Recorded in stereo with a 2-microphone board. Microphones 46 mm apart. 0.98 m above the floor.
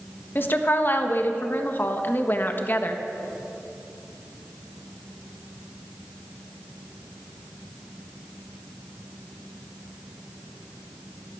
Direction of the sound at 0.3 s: 45° left (ahead or behind).